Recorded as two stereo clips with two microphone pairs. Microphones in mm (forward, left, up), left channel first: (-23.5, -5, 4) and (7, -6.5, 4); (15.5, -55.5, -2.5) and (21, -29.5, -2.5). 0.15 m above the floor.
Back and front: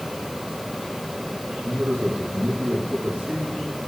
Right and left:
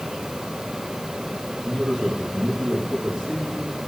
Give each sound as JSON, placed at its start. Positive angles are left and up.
{"t": 1.6, "sound": "a man speaking", "azimuth_deg": -10, "distance_m": 6.5}